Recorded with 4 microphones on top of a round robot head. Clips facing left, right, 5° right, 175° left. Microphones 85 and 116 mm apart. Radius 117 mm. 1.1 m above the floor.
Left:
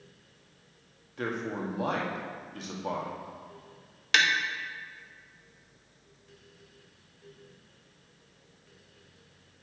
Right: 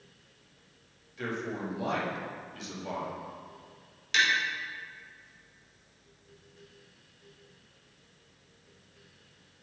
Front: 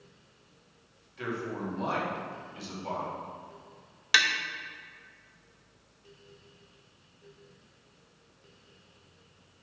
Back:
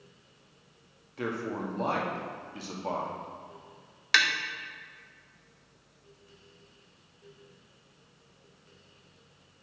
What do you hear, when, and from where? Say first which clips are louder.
1.2 s a man speaking: left 2 dB, back 2 dB; 130° left, 1.8 m
4.1 s tapping: left 2 dB, even; 80° left, 0.8 m